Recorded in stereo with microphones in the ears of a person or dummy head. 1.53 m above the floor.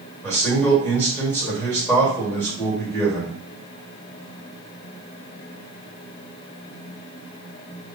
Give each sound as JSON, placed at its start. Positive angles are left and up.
{"t": 0.2, "sound": "a man speaking", "side_deg": 15, "distance_m": 1.8}